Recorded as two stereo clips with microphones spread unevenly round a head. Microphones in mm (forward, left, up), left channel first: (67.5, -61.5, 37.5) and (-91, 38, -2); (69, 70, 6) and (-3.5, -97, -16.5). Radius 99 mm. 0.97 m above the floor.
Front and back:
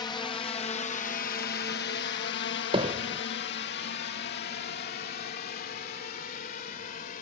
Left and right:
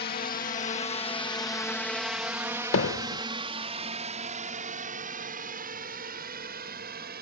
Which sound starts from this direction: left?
Hammering, at 2.7 s.